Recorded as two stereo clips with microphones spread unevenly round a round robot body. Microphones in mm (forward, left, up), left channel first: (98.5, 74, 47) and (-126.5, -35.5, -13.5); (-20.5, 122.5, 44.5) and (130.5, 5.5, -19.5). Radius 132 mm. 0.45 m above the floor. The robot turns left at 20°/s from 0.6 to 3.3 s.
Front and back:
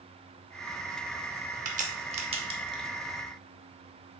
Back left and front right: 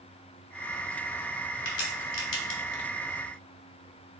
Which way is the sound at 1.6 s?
175° left.